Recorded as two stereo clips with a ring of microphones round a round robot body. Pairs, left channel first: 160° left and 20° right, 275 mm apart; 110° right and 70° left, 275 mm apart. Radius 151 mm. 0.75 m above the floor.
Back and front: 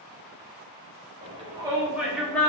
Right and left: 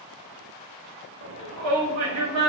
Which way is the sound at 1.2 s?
40° left.